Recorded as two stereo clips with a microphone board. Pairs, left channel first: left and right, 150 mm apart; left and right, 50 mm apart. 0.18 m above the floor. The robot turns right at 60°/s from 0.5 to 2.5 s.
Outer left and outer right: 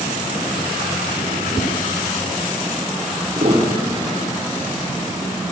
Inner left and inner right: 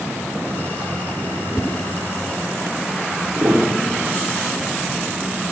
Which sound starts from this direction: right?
A piano, at 3.4 s.